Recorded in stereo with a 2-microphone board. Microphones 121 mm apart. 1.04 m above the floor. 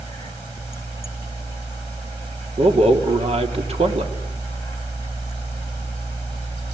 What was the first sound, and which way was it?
A man speaking, 60° right (ahead or behind).